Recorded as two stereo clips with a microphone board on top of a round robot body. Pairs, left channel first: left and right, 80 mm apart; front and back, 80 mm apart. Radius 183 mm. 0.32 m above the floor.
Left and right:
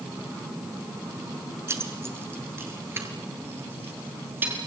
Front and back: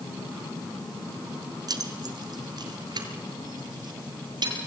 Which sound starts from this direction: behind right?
Keys jangling, at 1.7 s.